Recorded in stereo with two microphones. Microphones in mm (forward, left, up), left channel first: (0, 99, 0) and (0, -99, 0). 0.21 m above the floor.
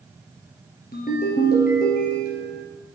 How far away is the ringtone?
About 2.5 m.